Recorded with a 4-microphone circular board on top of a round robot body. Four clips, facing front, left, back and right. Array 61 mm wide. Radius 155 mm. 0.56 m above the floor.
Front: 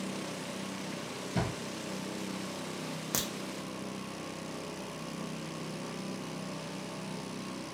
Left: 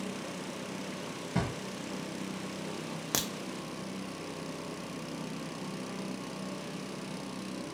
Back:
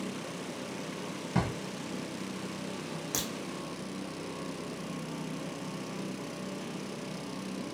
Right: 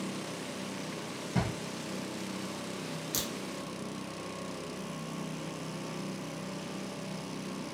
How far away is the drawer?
About 1.4 m.